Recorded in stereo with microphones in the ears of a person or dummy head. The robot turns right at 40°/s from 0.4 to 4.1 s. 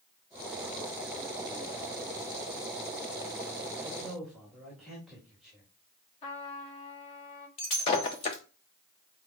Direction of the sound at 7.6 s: 25° left (ahead or behind).